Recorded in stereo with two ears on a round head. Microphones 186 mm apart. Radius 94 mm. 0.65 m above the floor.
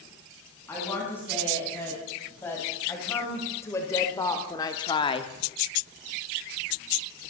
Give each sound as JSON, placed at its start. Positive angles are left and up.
{"t": 0.7, "sound": "a woman speaking", "side_deg": 10, "distance_m": 5.5}